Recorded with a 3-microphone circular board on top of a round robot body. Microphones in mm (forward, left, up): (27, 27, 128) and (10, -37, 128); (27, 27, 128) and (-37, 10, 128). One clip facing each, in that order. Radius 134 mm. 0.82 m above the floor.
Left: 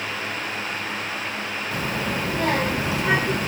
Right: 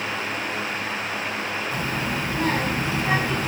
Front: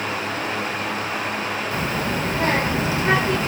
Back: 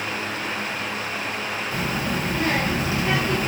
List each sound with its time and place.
1.7 s a child speaking: 75° left, 1.6 m